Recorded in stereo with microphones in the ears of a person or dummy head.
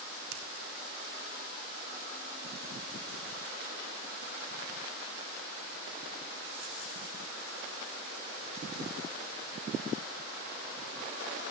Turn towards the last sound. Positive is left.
turn(degrees=-85)